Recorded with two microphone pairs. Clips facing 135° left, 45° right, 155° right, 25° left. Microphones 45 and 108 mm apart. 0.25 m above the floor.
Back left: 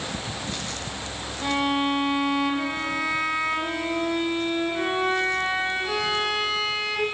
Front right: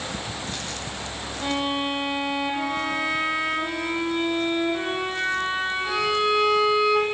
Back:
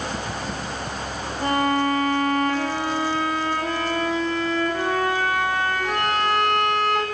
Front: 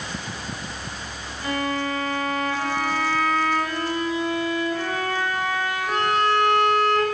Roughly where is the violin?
Behind right.